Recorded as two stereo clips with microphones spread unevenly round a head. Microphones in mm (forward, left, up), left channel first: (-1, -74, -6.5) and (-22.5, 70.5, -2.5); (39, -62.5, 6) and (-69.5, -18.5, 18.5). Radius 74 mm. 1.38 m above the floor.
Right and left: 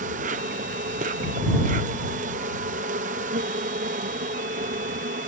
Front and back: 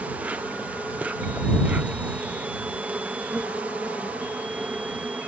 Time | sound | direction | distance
0.0 | an insect | 75° left | ?